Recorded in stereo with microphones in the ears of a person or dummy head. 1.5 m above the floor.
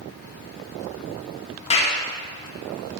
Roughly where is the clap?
Left.